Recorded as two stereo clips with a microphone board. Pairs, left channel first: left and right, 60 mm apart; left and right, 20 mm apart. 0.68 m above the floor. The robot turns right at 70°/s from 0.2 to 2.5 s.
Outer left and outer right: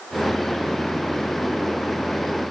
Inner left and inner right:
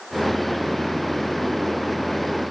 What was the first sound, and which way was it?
Only background noise.